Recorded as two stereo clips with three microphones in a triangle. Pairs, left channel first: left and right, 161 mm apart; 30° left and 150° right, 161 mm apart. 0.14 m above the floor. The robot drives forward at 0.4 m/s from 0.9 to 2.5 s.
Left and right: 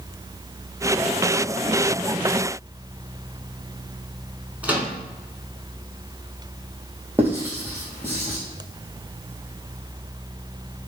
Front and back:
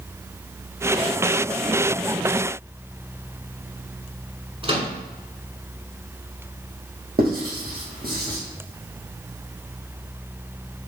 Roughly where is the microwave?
Behind.